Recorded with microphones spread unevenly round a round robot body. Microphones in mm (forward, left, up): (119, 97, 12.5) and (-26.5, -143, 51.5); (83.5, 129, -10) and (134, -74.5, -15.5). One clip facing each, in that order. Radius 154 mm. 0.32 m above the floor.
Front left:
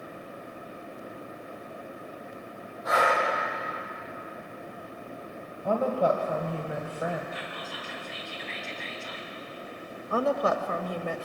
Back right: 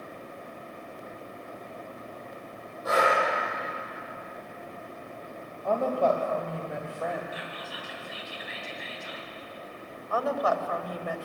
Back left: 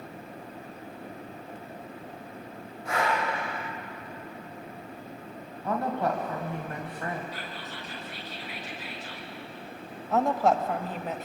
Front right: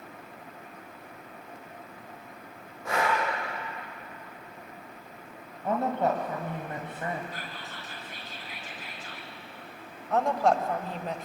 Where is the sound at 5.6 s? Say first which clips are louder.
Even, front right 2 dB; 15° right, 2 m.